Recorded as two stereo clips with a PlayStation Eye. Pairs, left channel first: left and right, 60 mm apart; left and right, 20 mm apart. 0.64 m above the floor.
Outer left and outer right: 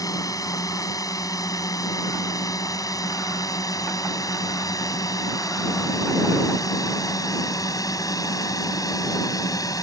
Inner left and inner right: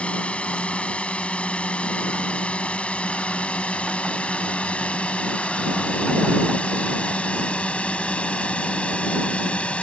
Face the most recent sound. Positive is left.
turn(degrees=75)  # may be behind; listen again after turning